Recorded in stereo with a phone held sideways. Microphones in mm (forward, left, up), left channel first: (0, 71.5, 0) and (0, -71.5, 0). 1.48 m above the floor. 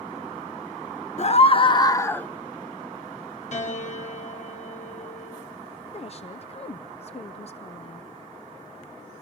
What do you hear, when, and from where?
1.2 s a scream: 50° left (ahead or behind), 1.3 m; by 2.3 s 10° left (ahead or behind), 1.2 m
3.5 s a piano: 55° left (ahead or behind), 6.5 m
5.9 s a woman speaking: 45° left (ahead or behind), 0.6 m